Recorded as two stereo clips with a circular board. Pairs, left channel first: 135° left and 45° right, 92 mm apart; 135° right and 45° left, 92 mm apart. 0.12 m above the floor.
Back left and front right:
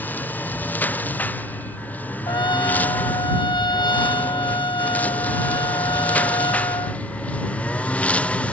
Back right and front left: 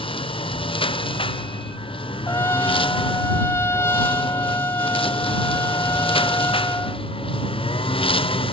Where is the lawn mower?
155° right; by 8.5 s 150° right.